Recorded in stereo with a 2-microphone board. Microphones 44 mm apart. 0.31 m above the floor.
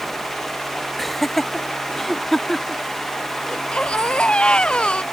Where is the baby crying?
25° left (ahead or behind).